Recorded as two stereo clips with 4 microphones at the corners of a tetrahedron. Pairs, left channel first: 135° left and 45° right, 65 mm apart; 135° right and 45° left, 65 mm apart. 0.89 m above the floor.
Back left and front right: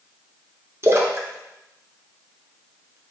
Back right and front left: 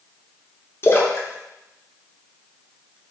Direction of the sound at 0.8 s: 90° right.